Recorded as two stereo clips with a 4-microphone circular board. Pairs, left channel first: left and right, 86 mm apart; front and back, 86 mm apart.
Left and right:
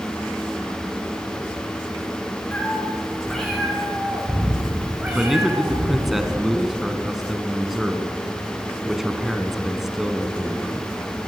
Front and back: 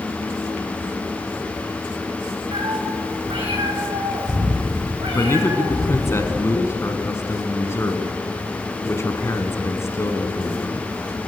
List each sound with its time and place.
2.5 s a cat meowing: 165° left, 5 m; by 6.2 s 150° right, 6 m
5.2 s a man speaking: 5° right, 1.4 m